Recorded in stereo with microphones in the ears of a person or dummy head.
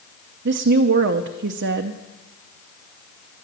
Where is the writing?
I don't hear writing.